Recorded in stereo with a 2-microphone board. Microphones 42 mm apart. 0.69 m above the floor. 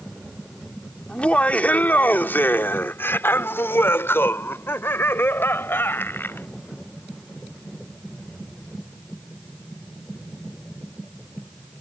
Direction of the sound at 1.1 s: 25° left (ahead or behind).